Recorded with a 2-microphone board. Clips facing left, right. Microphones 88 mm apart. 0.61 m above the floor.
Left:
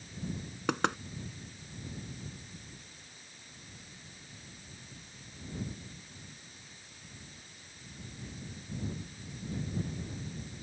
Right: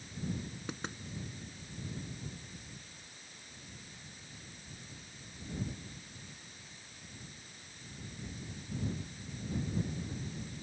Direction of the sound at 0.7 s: 75° left (ahead or behind).